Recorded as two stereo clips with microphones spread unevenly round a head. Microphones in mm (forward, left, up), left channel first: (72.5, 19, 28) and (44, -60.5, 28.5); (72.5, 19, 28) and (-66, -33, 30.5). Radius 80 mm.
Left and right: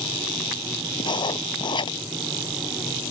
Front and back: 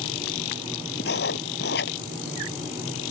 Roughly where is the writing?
Ahead left.